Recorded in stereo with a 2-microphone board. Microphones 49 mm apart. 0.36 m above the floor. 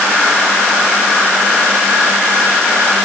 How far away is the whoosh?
No whoosh in this recording.